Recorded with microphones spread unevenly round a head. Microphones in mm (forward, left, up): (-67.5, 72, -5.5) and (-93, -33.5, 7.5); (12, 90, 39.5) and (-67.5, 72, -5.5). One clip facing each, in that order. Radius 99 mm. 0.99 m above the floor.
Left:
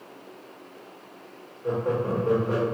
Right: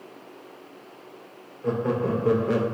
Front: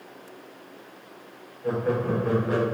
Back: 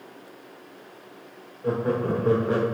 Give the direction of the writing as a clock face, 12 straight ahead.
I don't hear writing.